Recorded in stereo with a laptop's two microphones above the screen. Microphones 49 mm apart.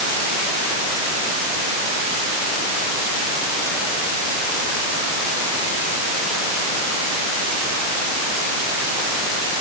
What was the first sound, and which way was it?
Only background noise.